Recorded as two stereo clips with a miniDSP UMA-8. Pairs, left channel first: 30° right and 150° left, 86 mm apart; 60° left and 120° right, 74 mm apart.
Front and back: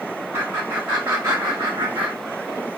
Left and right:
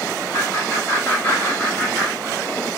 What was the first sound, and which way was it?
Laughter, 95° left.